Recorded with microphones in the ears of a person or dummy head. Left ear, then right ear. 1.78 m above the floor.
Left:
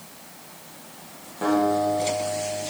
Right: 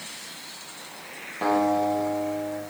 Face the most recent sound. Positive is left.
turn(degrees=-15)  # may be behind; listen again after turning